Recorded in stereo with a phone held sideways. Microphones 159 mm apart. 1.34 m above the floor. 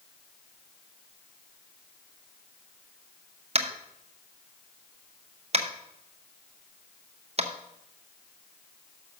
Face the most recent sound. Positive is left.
turn(degrees=-45)  # may be behind; listen again after turning